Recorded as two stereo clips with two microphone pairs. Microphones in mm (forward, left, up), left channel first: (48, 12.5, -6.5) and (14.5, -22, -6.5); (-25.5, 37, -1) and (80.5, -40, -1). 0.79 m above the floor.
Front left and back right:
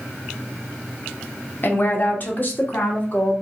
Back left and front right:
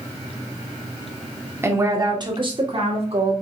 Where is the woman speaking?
30° left, 1.1 m; by 3.4 s 5° right, 1.8 m.